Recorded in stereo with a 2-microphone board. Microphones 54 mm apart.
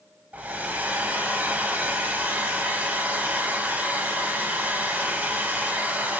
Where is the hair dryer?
30° right (ahead or behind), 0.5 m.